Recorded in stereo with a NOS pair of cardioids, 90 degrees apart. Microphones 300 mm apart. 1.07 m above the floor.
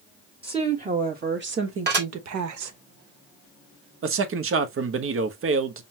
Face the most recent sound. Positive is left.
turn(degrees=-45)